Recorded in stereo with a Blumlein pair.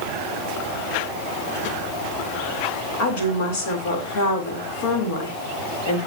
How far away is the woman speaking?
About 4 m.